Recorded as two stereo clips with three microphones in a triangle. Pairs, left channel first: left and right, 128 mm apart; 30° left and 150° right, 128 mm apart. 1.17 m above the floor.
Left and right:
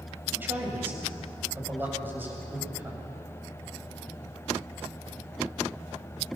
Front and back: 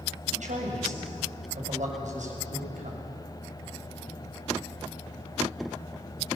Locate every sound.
0.3 s a man speaking: 165° right, 7 m